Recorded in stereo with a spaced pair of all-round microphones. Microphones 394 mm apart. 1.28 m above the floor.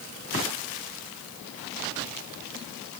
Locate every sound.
Only background noise.